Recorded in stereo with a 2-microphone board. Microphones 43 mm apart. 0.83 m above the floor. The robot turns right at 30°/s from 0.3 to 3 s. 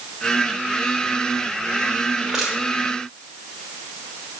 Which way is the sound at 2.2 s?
15° right (ahead or behind).